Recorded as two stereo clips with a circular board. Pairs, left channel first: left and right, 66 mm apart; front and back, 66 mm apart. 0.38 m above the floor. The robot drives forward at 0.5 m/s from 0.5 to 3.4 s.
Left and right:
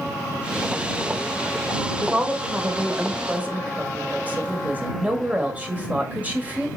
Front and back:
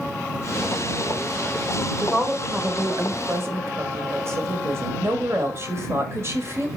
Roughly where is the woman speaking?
Behind right.